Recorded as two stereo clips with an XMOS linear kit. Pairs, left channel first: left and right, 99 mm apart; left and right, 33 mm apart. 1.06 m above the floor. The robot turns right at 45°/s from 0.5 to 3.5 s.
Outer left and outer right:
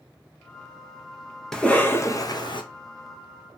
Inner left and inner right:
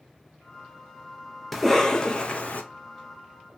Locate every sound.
1.5 s a cough: 5° left, 0.6 m; by 2.6 s 55° left, 0.6 m